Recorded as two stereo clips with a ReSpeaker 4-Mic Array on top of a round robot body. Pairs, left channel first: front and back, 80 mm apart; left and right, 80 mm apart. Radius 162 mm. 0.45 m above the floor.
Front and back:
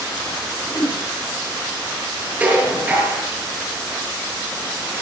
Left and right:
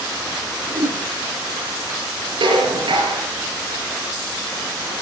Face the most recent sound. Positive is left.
turn(degrees=-110)